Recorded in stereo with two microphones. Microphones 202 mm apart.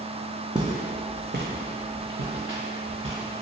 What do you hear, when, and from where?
0.6 s footsteps: 20° right (ahead or behind), 0.6 m; by 3.4 s 80° right, 1.5 m